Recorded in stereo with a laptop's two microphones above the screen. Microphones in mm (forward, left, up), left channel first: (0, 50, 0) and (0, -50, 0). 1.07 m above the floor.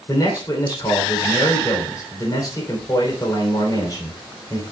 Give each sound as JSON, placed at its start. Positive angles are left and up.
{"t": 0.1, "sound": "a man speaking", "side_deg": 40, "distance_m": 3.0}